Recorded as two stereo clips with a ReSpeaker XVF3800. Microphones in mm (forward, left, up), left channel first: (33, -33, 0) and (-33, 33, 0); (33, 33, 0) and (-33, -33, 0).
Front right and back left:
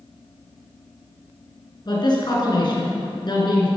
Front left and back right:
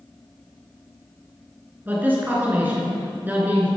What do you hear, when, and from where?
1.9 s a man speaking: 70° right, 3 m